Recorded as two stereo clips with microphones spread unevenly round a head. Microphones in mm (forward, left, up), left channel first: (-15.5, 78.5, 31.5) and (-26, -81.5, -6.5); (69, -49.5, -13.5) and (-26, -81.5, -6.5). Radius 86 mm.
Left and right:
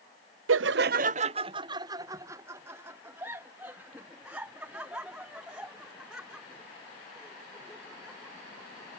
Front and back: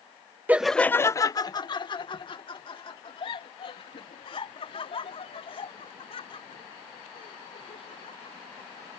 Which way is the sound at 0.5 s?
85° right.